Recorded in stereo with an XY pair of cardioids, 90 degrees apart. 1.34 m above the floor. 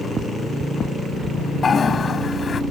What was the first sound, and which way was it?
A toilet flushing, 45° left.